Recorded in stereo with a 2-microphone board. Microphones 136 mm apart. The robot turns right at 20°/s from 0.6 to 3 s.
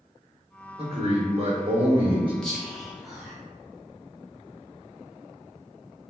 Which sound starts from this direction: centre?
Whispering, at 2.4 s.